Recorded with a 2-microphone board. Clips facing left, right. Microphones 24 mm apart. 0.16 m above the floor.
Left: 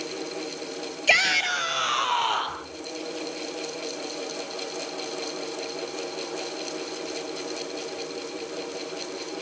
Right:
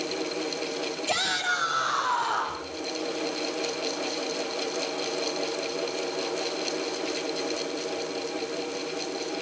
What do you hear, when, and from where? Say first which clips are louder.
1.1 s a shout: left 7 dB; 65° left (ahead or behind), 3.5 m; by 2.6 s 70° left (ahead or behind), 5.5 m